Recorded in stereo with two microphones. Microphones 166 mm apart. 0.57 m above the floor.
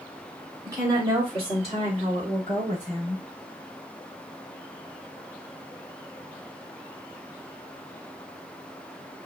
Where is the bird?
No bird in this recording.